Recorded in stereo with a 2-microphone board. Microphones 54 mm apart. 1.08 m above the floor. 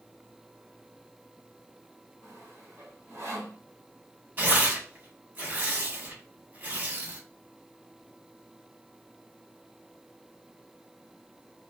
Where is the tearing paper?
35° right (ahead or behind), 1.9 m.